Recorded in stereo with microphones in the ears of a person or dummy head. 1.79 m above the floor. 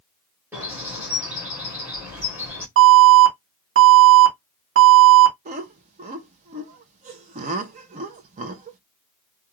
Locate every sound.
0.5 s a bird: 15° right (ahead or behind), 1.2 m
2.8 s an alarm: 75° right (ahead or behind), 1.0 m
5.5 s laughter: 45° right (ahead or behind), 0.6 m